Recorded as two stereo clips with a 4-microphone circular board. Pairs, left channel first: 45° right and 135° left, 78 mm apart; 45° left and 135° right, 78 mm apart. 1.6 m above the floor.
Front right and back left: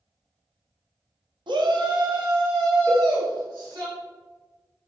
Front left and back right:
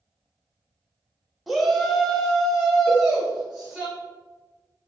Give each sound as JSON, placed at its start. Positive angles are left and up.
{"t": 1.5, "sound": "a shout", "azimuth_deg": 135, "distance_m": 0.6}
{"t": 2.9, "sound": "a cowbell", "azimuth_deg": -55, "distance_m": 0.8}